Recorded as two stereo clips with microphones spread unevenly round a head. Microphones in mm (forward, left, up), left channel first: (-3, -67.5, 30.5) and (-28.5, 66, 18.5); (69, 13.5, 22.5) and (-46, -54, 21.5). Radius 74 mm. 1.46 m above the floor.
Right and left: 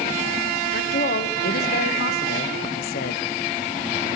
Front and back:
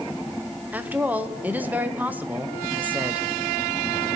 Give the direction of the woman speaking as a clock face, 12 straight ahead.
2 o'clock.